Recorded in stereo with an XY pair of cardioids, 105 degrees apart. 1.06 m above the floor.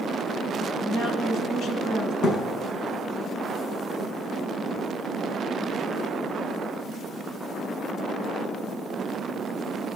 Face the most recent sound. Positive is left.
turn(degrees=70)